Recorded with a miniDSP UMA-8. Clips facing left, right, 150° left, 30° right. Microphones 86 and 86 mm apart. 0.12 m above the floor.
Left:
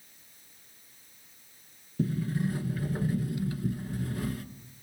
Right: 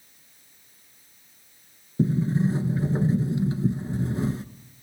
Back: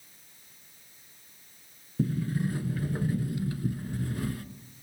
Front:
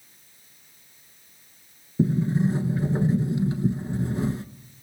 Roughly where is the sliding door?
Ahead right.